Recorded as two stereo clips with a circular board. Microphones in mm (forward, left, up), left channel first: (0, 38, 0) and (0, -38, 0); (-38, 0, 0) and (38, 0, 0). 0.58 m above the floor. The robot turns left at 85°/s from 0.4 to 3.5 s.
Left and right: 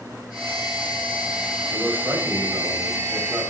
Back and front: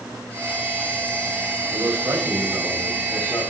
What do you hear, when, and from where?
1.7 s a man speaking: 5° right, 2.5 m; by 3.5 s 160° right, 2.5 m